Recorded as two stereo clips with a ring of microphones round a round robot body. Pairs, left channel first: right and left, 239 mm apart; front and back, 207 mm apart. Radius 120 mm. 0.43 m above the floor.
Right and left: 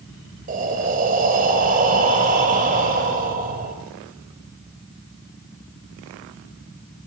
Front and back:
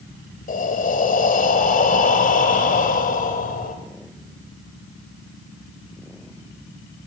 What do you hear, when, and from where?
0.5 s breathing: 40° left, 2 m